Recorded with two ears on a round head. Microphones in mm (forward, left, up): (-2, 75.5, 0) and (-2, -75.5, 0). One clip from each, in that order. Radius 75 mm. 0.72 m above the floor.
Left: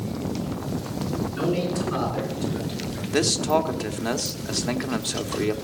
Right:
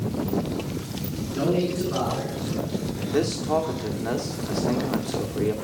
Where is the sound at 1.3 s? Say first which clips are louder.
Right 3 dB; 30° left (ahead or behind), 9.5 m; by 3.0 s 40° left (ahead or behind), 8 m.